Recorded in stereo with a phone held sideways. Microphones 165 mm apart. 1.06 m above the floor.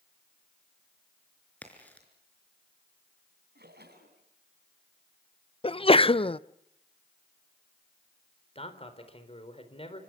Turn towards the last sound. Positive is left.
turn(degrees=35)  # may be behind; listen again after turning